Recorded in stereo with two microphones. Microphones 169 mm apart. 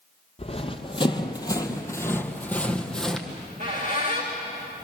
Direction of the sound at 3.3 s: 45° right (ahead or behind).